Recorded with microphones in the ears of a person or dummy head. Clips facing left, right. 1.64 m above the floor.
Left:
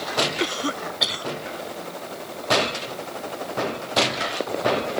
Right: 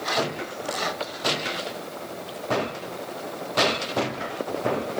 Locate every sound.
0.4 s a cough: 85° left